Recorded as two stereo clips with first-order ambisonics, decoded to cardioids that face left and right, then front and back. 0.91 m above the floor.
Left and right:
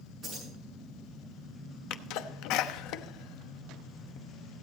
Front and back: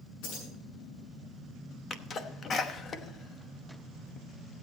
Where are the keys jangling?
20° right, 7.5 m.